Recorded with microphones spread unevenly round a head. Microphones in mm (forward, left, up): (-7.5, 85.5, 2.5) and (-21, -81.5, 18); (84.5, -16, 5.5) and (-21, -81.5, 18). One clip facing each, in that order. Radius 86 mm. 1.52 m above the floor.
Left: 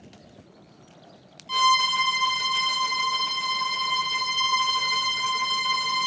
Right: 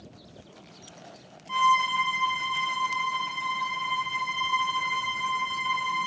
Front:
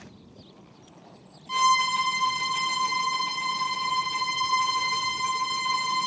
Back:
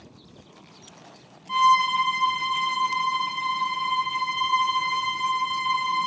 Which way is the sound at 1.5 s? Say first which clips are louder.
Left 1 dB, back 4 dB; 85° left.